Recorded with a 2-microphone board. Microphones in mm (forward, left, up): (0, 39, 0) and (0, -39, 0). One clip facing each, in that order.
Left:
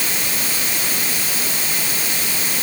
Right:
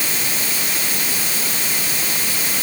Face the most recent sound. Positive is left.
No sound to turn to.